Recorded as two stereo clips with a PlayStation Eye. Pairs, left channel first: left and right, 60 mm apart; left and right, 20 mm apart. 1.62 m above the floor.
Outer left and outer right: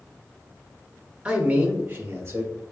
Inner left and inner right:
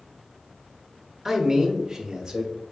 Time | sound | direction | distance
1.2 | a man speaking | 20° right (ahead or behind) | 1.1 m